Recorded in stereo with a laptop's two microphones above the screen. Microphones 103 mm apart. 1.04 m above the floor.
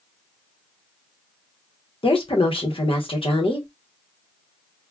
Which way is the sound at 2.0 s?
60° left (ahead or behind).